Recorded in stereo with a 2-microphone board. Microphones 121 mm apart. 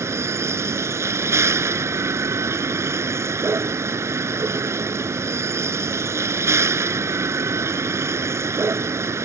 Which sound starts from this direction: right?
A vehicle, at 0.0 s.